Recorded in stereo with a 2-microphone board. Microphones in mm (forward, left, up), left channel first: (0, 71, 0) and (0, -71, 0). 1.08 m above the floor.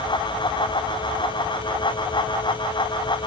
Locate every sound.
Only background noise.